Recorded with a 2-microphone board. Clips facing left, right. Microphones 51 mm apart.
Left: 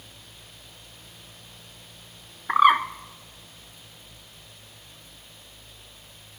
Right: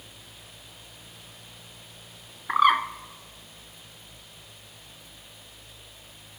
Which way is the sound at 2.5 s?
10° left (ahead or behind).